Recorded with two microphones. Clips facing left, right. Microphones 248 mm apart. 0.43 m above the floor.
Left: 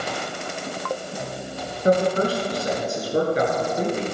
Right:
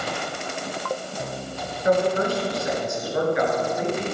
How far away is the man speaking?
About 6 m.